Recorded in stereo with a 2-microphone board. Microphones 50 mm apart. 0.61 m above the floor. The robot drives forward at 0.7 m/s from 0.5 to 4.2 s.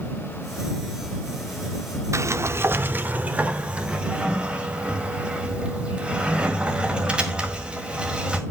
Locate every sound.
2.1 s a sliding door: 75° right (ahead or behind), 0.5 m; by 8.4 s 20° right (ahead or behind), 1.6 m